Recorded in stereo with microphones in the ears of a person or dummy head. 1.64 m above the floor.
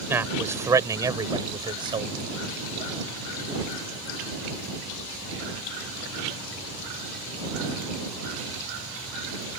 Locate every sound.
0.1 s a man speaking: 10° right (ahead or behind); by 2.2 s 25° right (ahead or behind)